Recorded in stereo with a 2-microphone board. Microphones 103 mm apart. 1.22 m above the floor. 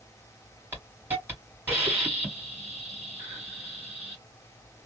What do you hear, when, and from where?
0.7 s a hiss: 20° right (ahead or behind), 1.8 m